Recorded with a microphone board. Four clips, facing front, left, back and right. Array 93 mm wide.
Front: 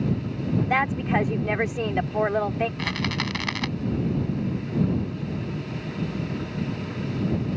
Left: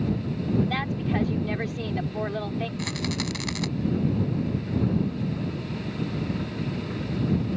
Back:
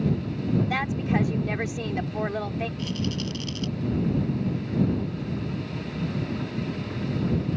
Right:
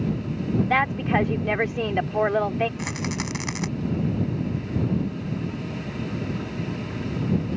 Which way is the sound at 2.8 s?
20° right.